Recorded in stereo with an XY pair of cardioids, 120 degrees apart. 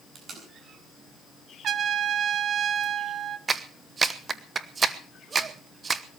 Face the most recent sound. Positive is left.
turn(degrees=-30)